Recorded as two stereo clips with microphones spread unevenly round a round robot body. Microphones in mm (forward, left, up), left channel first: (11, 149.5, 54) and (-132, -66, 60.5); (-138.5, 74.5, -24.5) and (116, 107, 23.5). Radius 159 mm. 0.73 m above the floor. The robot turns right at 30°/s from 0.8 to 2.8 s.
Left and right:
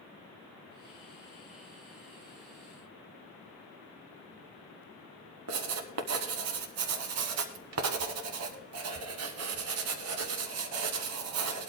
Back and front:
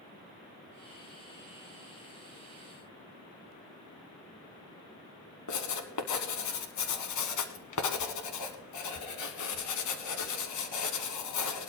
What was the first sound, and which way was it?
Writing, 140° right.